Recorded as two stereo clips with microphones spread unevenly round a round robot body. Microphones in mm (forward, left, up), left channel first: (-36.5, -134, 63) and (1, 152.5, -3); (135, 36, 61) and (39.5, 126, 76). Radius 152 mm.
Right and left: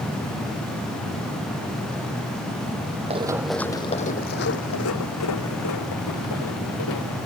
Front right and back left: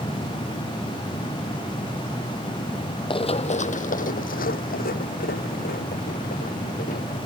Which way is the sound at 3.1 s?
5° left.